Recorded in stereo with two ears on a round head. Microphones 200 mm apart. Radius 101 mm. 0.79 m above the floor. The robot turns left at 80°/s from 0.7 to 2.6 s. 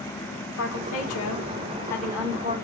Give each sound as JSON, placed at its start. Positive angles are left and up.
{"t": 0.6, "sound": "a woman speaking", "azimuth_deg": 110, "distance_m": 2.5}